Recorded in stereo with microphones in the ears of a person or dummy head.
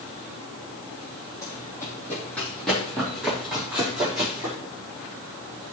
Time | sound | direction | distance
1.4 | running footsteps | 20° left (ahead or behind) | 3 m